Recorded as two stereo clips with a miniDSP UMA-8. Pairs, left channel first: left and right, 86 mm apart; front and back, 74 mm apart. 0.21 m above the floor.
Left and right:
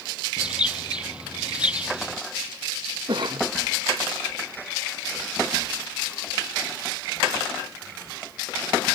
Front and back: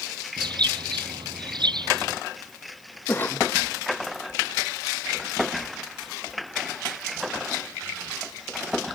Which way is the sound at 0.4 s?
165° right.